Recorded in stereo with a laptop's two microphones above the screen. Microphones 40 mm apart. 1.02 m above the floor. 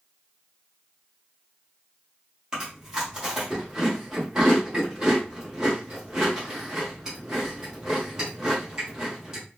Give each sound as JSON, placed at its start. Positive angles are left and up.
{"t": 2.5, "sound": "chewing", "side_deg": -15, "distance_m": 1.3}